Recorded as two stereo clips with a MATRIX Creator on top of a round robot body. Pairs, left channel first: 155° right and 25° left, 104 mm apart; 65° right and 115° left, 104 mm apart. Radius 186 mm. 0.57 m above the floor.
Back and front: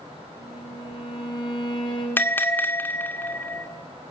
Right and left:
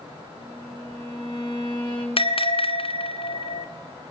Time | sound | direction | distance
0.4 | a violin | 115° right | 6 m
2.2 | a bell | 85° right | 2 m